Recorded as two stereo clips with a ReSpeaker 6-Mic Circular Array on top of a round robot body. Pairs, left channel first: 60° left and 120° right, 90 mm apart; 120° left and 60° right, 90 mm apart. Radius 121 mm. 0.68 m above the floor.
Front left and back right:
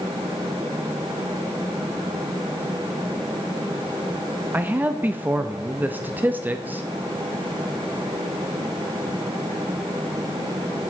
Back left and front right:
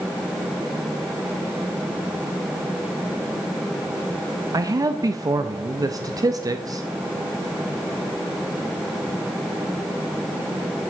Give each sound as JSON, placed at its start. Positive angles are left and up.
{"t": 4.5, "sound": "a man speaking", "azimuth_deg": -65, "distance_m": 0.7}